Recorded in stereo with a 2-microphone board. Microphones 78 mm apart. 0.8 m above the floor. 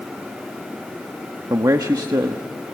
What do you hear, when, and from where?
1.5 s a man speaking: 45° right (ahead or behind), 0.9 m